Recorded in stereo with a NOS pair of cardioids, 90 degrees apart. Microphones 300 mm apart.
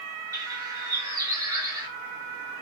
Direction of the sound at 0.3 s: 10° right.